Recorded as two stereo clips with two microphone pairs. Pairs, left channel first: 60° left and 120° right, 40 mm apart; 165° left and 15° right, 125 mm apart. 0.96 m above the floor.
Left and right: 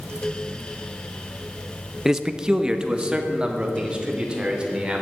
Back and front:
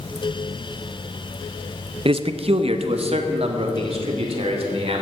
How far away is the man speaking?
About 0.6 m.